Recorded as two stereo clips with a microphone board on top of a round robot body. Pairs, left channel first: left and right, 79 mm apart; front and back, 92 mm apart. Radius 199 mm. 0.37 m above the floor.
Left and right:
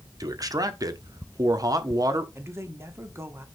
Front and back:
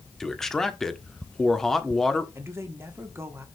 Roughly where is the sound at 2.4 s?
Behind right.